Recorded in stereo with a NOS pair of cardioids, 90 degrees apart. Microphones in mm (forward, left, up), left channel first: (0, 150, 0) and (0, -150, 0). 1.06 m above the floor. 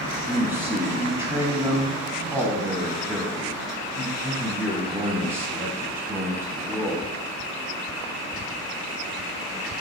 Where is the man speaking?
10° right, 1.2 m.